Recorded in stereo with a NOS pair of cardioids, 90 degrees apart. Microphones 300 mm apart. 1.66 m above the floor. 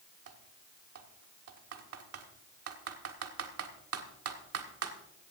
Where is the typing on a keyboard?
50° right, 1.6 m.